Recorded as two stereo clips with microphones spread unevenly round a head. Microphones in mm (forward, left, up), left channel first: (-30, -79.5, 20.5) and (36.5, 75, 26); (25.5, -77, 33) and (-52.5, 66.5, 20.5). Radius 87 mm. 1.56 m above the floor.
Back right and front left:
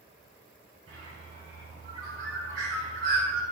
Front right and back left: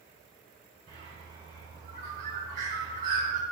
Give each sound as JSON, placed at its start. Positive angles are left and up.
{"t": 0.9, "sound": "a bird", "azimuth_deg": 75, "distance_m": 3.5}